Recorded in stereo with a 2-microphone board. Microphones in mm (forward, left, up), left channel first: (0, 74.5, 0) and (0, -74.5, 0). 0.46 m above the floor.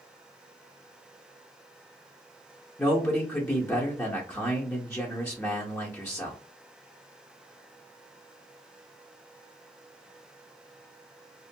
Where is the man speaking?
15° left (ahead or behind), 0.8 m.